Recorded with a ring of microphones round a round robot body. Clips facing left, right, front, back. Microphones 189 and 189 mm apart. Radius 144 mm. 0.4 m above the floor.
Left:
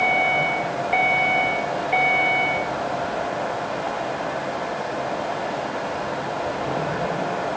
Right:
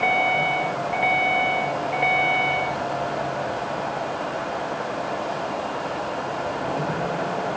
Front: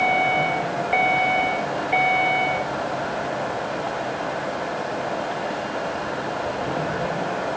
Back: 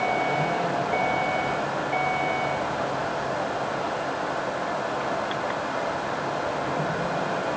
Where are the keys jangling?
I don't hear keys jangling.